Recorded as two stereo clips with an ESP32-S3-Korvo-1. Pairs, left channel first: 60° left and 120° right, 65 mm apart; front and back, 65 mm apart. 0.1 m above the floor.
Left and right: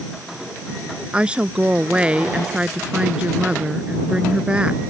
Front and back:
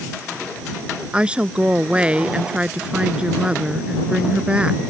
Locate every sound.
1.1 s a woman speaking: 150° right